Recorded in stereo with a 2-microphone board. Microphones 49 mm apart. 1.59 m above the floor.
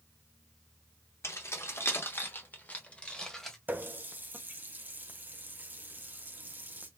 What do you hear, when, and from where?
1.2 s keys jangling: 70° left (ahead or behind), 1.4 m; by 3.6 s 10° left (ahead or behind), 1.2 m
3.7 s a running tap: 40° right (ahead or behind), 0.7 m